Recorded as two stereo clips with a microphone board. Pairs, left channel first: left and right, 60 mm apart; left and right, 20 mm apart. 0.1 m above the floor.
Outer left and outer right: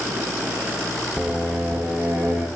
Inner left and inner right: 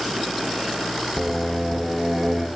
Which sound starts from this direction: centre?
Singing, at 1.2 s.